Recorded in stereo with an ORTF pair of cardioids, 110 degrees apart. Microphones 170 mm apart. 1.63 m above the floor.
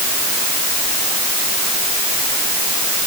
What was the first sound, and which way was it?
Only background noise.